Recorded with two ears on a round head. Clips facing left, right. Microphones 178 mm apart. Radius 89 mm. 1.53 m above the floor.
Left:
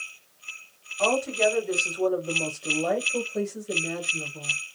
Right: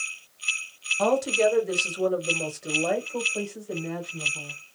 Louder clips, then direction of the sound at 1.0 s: Right 2 dB; 60° right (ahead or behind).